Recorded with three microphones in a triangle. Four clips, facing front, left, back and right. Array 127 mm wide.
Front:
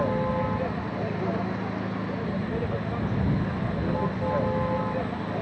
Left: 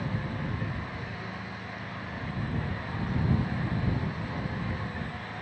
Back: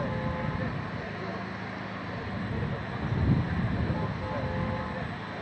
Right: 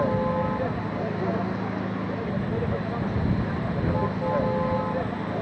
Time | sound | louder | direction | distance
0.0 | a vehicle | right 11 dB, front 7 dB | 60° right | ?